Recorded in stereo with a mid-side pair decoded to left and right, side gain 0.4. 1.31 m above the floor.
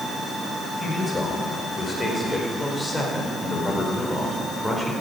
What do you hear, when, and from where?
0.8 s a man speaking: 30° left, 5 m; by 4.9 s 5° left, 4.5 m